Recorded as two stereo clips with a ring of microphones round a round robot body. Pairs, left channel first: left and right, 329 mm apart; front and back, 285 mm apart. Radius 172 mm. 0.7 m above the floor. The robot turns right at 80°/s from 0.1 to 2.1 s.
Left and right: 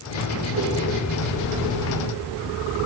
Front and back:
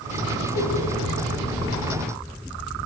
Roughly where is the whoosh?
Ahead right.